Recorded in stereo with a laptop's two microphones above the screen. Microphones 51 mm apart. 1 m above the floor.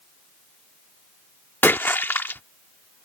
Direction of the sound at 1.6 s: 40° left (ahead or behind).